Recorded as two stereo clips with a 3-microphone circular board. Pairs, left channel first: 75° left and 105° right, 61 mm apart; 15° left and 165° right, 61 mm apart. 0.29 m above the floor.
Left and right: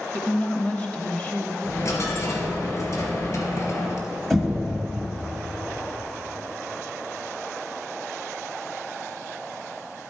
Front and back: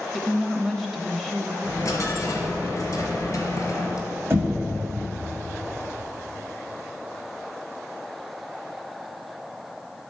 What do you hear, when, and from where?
0.1 s a woman speaking: 110° left, 0.9 m
1.6 s a dropped coin: 50° left, 1.9 m
4.3 s knocking: 160° left, 1.7 m